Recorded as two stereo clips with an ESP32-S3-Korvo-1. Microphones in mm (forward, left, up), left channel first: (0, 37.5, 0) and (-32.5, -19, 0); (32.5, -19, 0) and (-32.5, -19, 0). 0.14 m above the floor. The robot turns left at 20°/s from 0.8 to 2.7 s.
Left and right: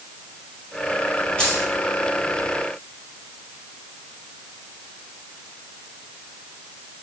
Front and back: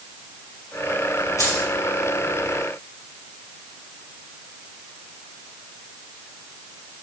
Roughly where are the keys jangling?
Ahead.